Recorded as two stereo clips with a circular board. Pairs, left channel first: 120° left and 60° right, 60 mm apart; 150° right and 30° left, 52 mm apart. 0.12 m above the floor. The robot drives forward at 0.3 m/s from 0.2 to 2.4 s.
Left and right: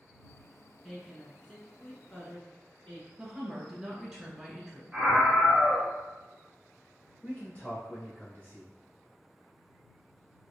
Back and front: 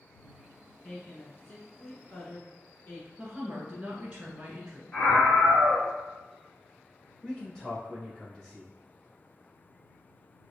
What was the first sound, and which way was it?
A woman speaking, 165° right.